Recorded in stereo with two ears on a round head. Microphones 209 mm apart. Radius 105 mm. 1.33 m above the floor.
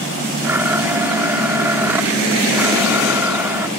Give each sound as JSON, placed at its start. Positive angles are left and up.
{"t": 0.4, "sound": "a blender", "side_deg": -10}